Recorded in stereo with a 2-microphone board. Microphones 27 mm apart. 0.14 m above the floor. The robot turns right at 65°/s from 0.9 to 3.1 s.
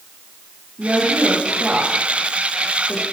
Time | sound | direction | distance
0.8 | a woman speaking | 70° right (ahead or behind) | 5.5 m